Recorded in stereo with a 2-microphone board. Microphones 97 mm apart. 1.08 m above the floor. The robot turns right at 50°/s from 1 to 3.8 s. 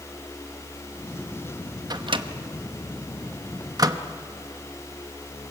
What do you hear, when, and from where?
1.9 s a microwave: 45° right (ahead or behind), 0.9 m; by 4.0 s 40° right (ahead or behind), 0.9 m